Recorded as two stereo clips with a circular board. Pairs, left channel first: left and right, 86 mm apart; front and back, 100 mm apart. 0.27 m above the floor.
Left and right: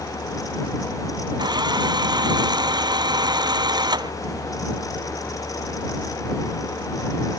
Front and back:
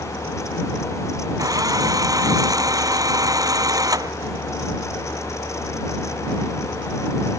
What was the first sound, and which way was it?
A drill, 125° right.